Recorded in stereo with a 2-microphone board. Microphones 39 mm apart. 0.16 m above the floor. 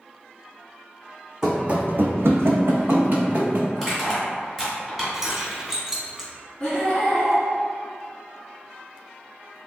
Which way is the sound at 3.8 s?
Centre (ahead or behind).